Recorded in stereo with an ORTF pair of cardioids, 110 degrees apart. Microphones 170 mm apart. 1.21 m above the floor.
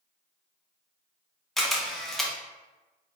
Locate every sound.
1.6 s a camera shutter: straight ahead, 0.6 m